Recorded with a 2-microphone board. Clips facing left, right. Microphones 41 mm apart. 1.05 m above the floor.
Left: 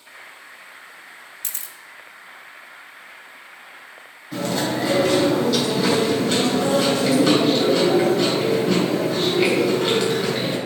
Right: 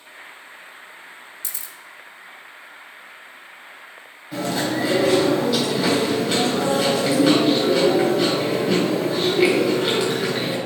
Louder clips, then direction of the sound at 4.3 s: Even; 10° right (ahead or behind).